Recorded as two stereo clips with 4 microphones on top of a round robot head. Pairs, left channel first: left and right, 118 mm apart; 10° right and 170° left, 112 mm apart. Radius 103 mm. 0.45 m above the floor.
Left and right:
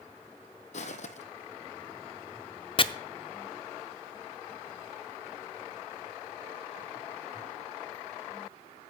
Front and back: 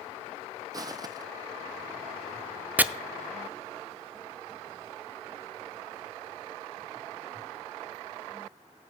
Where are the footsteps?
115° left, 0.9 m.